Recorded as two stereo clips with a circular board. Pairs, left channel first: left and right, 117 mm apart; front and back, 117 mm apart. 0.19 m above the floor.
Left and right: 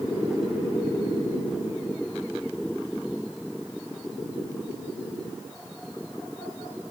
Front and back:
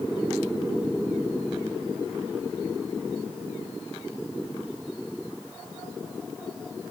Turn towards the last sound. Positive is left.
No sound to turn to.